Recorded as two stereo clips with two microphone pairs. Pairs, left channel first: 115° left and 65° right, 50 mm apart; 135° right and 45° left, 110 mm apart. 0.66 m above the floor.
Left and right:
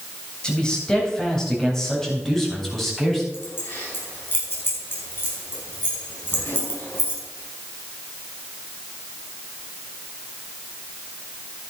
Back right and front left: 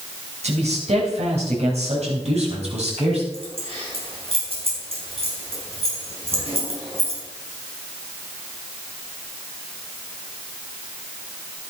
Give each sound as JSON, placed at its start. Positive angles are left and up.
{"t": 0.4, "sound": "a man speaking", "azimuth_deg": 40, "distance_m": 4.0}
{"t": 3.3, "sound": "keys jangling", "azimuth_deg": 75, "distance_m": 4.5}